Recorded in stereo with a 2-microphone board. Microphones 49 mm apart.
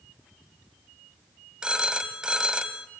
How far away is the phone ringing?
About 0.8 m.